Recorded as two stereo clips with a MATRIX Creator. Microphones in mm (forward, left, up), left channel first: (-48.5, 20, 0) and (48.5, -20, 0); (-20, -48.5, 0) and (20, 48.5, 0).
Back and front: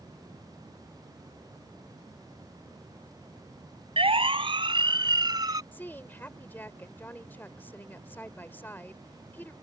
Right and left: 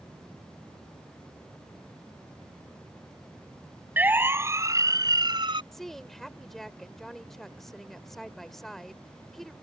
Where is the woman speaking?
165° left.